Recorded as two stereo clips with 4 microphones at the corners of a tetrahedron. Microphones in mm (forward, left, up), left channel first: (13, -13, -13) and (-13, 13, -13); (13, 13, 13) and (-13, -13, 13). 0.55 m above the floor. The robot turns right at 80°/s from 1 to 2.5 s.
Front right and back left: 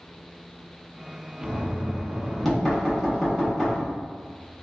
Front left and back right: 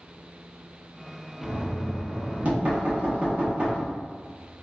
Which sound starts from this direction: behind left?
Knocking, at 1.4 s.